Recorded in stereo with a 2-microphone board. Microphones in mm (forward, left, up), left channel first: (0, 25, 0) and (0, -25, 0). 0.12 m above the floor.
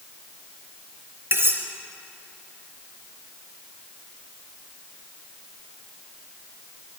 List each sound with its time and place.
1.3 s cutlery clinking: 50° right (ahead or behind), 1.3 m